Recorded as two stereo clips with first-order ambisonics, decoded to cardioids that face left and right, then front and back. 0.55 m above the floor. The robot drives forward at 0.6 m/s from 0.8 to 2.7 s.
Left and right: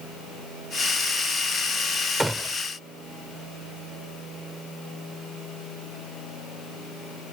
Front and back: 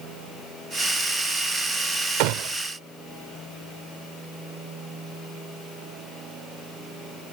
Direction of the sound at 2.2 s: 170° right.